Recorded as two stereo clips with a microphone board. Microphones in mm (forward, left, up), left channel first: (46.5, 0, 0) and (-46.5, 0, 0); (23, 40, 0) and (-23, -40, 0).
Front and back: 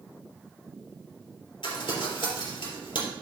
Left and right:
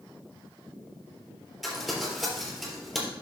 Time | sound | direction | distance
1.6 | crumpling | 30° right | 4 m